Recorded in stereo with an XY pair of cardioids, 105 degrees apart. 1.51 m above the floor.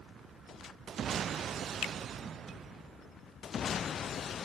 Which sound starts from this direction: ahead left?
A finger snap, at 1.8 s.